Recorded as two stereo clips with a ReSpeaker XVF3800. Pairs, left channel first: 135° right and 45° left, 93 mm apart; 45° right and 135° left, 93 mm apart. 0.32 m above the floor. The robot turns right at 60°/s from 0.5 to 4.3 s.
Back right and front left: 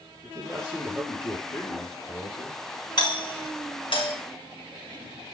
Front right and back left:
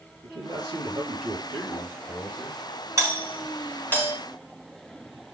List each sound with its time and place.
0.2 s a man speaking: 110° left, 6 m; by 2.6 s 125° right, 6 m
3.0 s a doorbell: 170° right, 4 m; by 4.1 s 100° right, 4 m